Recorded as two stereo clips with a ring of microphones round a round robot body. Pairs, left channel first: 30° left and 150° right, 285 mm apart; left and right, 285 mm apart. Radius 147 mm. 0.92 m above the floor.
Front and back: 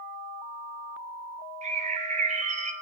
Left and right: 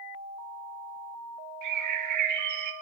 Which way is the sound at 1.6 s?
85° right.